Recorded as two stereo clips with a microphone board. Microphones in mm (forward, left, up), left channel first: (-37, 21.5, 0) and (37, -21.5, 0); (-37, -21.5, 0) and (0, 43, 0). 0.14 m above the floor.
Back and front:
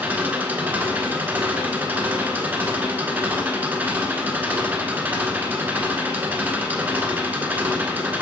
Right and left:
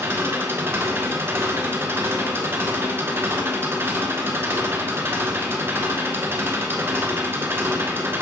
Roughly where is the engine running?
Ahead left.